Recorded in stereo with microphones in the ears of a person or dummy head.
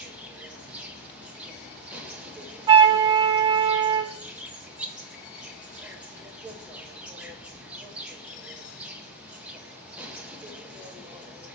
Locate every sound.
0.0 s an insect: 5° right (ahead or behind), 1.5 m
2.7 s a flute: 20° right (ahead or behind), 0.6 m